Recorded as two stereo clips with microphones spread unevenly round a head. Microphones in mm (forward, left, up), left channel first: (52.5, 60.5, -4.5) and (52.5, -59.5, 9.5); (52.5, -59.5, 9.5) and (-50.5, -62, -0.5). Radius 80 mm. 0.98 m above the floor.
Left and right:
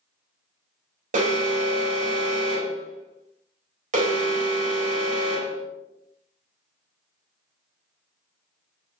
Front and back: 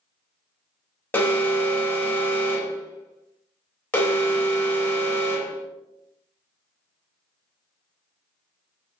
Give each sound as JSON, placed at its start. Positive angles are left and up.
{"t": 1.1, "sound": "an alarm", "azimuth_deg": -75, "distance_m": 3.5}